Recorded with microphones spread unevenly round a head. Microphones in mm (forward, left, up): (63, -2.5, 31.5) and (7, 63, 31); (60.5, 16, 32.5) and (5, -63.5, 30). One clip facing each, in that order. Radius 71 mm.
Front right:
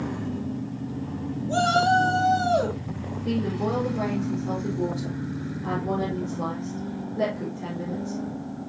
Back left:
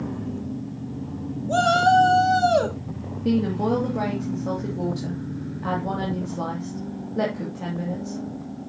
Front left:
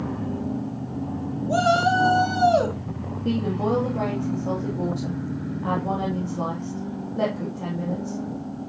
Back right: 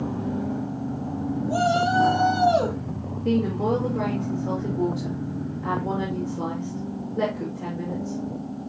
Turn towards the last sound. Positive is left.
turn(degrees=125)